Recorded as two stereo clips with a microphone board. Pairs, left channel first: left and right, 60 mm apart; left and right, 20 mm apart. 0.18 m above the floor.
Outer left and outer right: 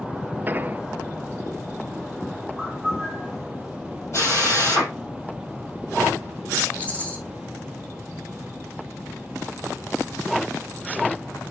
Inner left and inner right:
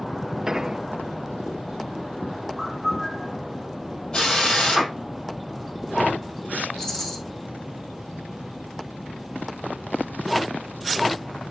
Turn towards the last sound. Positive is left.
turn(degrees=25)  # may be behind; listen again after turning